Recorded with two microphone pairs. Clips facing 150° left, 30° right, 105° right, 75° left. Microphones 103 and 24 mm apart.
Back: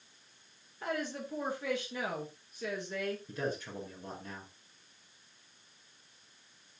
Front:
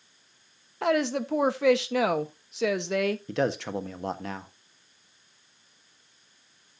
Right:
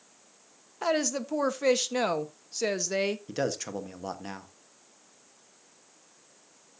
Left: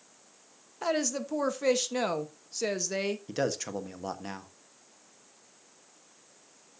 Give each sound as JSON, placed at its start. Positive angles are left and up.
{"t": 0.8, "sound": "a woman speaking", "azimuth_deg": -35, "distance_m": 1.1}
{"t": 3.3, "sound": "a man speaking", "azimuth_deg": -20, "distance_m": 1.2}